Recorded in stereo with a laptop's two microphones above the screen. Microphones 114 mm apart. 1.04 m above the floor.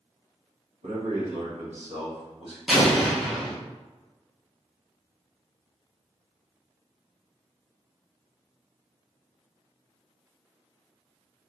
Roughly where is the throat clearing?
I don't hear throat clearing.